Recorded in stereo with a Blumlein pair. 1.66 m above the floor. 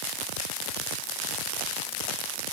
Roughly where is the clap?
I don't hear a clap.